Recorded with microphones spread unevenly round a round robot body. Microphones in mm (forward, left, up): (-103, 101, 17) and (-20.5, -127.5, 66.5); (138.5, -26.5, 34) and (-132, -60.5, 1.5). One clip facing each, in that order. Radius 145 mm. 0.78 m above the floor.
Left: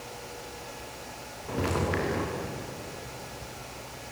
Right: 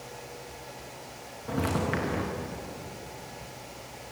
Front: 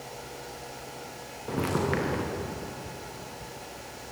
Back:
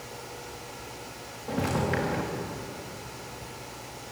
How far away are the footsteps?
About 5 m.